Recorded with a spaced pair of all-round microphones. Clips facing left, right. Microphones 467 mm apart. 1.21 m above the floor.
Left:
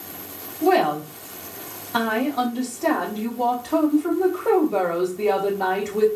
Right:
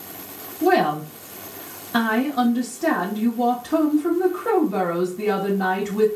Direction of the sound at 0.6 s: 35° right (ahead or behind).